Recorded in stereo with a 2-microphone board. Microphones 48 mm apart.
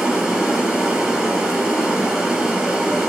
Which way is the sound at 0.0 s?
10° right (ahead or behind).